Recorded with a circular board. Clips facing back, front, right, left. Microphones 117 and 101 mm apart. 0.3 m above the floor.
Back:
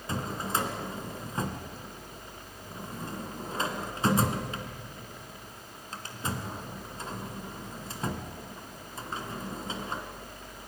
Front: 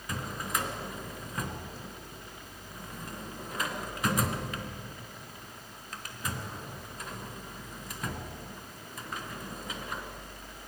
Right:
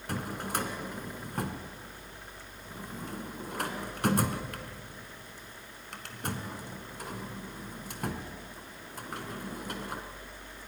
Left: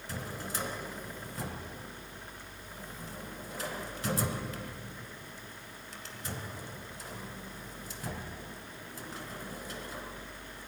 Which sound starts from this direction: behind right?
A drawer, at 0.1 s.